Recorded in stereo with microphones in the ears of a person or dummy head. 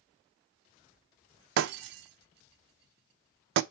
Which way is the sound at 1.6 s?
65° right (ahead or behind).